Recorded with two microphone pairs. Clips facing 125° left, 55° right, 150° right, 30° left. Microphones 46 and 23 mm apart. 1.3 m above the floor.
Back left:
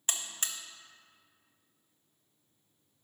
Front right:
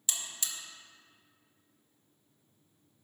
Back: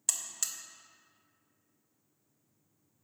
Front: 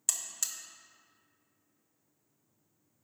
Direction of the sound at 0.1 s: 130° left.